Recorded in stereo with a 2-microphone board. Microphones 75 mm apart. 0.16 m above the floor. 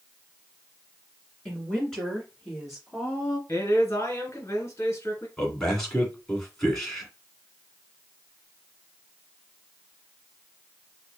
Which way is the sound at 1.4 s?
15° left (ahead or behind).